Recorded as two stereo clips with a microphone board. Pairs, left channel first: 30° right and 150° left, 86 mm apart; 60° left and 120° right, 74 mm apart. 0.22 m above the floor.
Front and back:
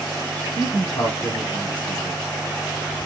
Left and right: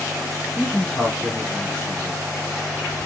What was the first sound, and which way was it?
A man speaking, 15° right.